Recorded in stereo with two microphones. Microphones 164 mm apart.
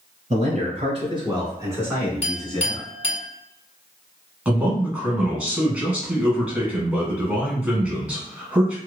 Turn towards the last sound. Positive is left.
turn(degrees=-10)  # may be behind; listen again after turning